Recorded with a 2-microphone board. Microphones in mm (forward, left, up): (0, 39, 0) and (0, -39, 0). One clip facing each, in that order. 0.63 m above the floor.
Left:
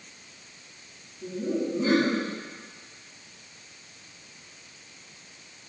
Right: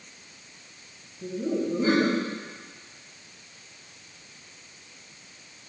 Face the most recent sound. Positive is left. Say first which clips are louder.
# right 1 dB
turn(degrees=-45)  # may be behind; listen again after turning